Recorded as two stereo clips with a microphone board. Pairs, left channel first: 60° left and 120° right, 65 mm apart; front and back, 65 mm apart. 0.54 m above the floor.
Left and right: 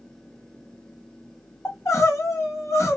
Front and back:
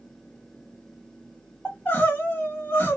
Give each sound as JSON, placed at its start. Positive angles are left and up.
{"t": 1.6, "sound": "crying", "azimuth_deg": 50, "distance_m": 0.9}